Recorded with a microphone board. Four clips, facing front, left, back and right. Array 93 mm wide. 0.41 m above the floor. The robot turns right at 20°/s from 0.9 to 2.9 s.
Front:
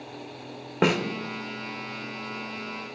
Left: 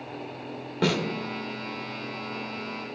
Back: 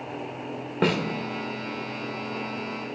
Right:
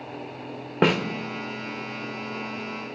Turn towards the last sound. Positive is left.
turn(degrees=-30)